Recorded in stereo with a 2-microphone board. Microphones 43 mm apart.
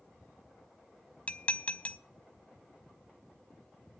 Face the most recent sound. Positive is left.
turn(degrees=30)  # may be behind; listen again after turning